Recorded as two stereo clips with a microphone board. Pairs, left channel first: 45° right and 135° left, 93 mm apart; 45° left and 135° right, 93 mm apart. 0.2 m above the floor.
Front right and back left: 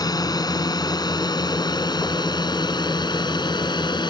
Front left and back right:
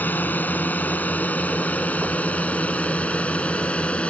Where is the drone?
20° right; by 4.1 s 30° right.